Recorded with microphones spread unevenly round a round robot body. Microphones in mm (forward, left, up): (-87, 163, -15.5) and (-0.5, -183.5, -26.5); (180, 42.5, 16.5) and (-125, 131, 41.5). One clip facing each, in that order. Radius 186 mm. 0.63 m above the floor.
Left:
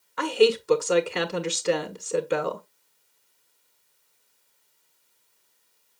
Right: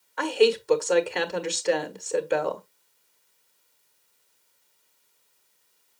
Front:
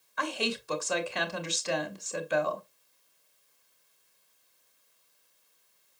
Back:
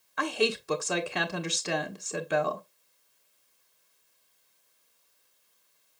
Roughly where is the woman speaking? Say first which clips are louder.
Left 1 dB, back 5 dB; behind.